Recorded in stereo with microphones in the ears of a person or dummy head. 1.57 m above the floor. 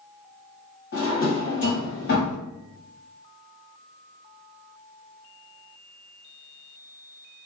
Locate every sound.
0.9 s a drawer: 55° left (ahead or behind), 1.6 m